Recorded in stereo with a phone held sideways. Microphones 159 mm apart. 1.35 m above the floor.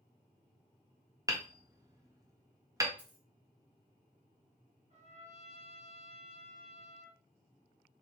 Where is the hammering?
20° right (ahead or behind), 0.7 m.